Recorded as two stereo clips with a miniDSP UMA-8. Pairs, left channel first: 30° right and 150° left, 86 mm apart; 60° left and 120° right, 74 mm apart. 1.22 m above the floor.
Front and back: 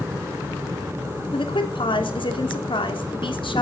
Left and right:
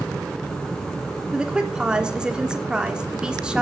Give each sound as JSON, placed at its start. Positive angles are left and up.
{"t": 1.3, "sound": "a woman speaking", "azimuth_deg": -40, "distance_m": 3.0}